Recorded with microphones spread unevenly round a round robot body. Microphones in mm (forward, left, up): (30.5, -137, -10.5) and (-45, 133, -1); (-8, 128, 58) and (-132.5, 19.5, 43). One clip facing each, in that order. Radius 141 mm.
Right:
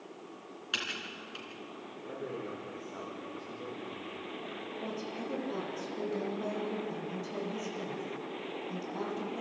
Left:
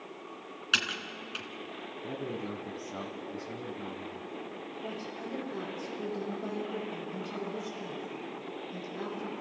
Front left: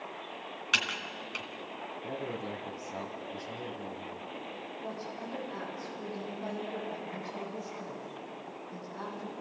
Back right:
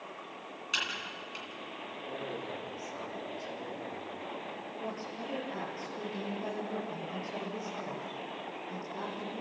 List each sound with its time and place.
0.7 s typing on a keyboard: 55° left, 2.5 m
2.0 s a man speaking: 75° left, 2.5 m
4.8 s a woman speaking: 80° right, 8 m